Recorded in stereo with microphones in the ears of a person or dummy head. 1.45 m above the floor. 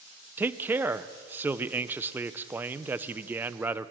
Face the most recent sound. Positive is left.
turn(degrees=-5)  # may be behind; listen again after turning